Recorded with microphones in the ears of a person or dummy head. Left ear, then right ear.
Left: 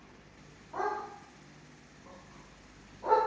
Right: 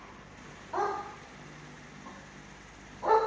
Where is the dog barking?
55° right (ahead or behind), 3 m; by 3.2 s 80° right, 3.5 m.